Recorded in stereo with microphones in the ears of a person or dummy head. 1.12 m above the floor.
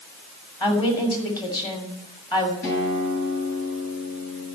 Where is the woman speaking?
25° left (ahead or behind), 2.5 m.